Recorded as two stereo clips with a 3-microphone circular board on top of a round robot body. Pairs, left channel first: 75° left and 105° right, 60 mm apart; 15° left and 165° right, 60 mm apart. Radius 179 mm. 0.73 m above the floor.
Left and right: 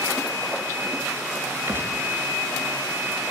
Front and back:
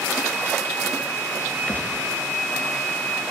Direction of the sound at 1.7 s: 50° right.